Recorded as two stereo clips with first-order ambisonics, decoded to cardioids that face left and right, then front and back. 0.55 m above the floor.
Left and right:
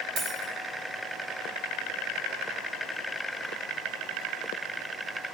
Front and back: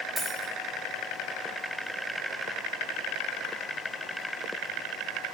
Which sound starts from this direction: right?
A dropped coin, at 0.2 s.